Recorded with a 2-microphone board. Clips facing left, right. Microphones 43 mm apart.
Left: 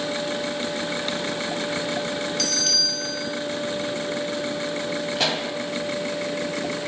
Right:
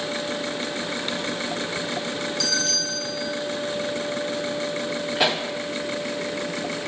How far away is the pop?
About 0.8 m.